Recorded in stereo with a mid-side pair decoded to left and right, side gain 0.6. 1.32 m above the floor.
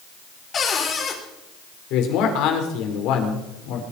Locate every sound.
0.5 s a cupboard door: 40° left, 4.5 m
1.9 s a man speaking: 70° left, 4.5 m